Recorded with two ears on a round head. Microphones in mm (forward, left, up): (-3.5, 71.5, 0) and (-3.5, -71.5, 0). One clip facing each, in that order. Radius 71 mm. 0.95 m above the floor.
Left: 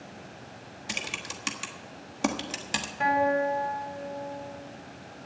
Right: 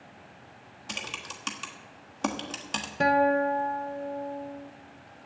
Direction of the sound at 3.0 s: 45° right (ahead or behind).